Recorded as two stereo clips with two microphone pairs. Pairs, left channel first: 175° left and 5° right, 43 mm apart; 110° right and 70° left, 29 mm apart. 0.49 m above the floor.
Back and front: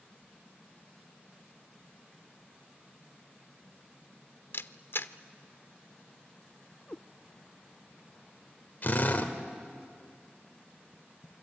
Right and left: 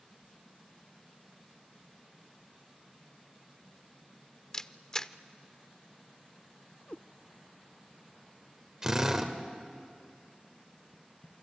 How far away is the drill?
About 1.8 m.